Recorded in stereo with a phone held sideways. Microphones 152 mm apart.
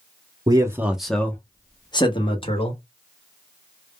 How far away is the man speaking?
About 0.5 m.